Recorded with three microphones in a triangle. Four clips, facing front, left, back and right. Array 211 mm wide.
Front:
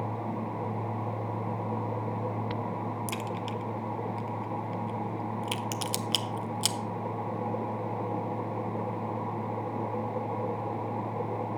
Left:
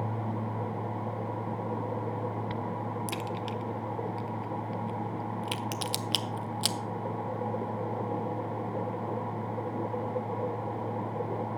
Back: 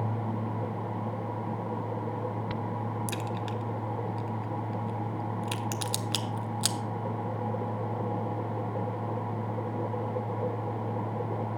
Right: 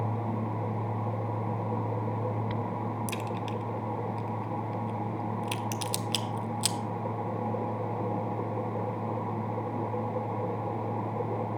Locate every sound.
3.1 s a crack: 100° left, 0.5 m